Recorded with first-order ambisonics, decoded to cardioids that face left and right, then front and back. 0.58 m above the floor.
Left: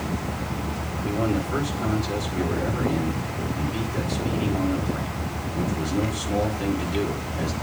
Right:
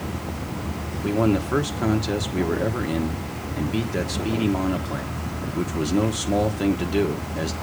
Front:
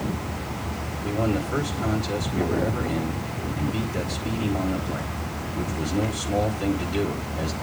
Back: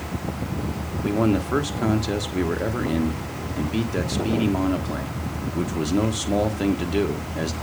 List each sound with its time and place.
1.0 s a man speaking: 145° right, 1.1 m